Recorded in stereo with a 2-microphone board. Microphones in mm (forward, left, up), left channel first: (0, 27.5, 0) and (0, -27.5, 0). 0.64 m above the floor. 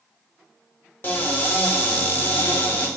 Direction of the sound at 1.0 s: 35° left (ahead or behind).